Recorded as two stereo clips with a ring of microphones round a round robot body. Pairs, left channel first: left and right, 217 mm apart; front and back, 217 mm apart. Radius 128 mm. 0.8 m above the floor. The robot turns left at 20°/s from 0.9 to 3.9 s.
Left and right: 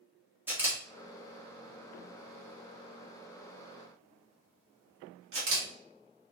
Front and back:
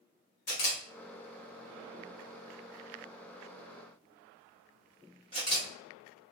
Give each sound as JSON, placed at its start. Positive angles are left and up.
{"t": 0.5, "sound": "a camera shutter", "azimuth_deg": -10, "distance_m": 1.3}